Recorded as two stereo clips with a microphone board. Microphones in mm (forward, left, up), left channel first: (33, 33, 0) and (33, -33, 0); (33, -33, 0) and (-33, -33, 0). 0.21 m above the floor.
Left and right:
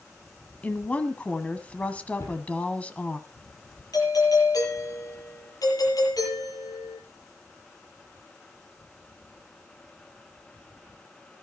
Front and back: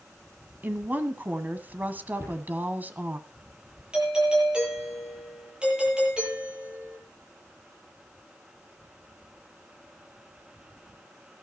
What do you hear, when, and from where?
0.6 s a woman speaking: 145° left, 1.4 m
2.2 s a cupboard door: 135° left, 7 m
3.9 s a doorbell: 105° left, 8 m